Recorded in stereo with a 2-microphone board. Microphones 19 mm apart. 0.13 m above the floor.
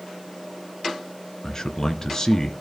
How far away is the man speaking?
About 1.5 m.